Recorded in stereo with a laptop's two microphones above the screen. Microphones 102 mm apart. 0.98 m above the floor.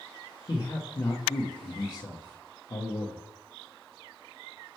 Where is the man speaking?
45° left (ahead or behind), 0.9 m.